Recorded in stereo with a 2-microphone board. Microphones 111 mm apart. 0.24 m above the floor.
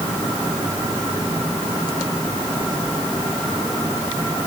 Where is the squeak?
No squeak in this recording.